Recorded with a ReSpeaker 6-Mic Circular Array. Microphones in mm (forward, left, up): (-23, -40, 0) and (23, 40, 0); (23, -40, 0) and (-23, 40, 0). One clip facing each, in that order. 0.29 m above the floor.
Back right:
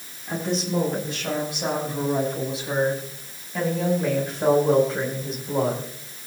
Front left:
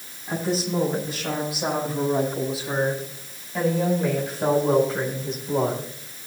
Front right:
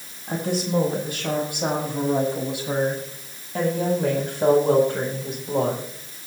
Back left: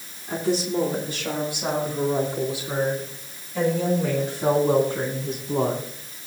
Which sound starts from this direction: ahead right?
A woman speaking, at 0.3 s.